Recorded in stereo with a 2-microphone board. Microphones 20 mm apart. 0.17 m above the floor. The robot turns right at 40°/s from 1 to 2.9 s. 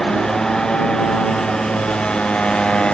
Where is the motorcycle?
40° left (ahead or behind); by 3.0 s 50° left (ahead or behind).